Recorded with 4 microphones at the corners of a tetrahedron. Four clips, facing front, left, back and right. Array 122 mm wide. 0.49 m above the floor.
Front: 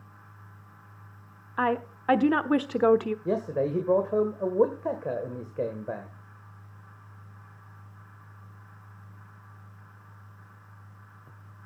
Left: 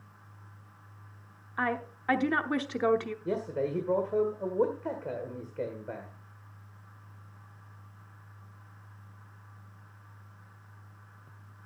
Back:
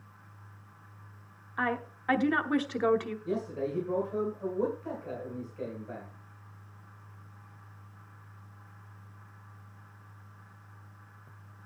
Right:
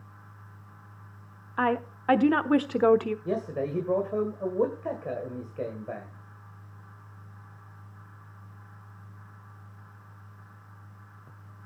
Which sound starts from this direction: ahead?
A man speaking, at 3.2 s.